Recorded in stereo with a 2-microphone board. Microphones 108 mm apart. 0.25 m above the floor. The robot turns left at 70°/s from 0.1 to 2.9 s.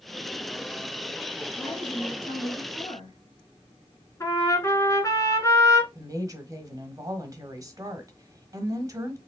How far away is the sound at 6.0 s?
About 1.1 m.